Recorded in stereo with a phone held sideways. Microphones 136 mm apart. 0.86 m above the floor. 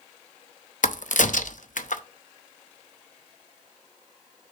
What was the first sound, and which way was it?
A crack, 70° left (ahead or behind).